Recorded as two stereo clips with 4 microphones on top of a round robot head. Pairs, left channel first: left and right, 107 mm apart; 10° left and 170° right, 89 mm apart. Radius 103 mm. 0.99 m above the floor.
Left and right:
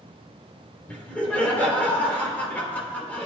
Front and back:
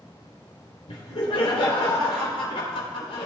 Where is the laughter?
15° left, 4 m.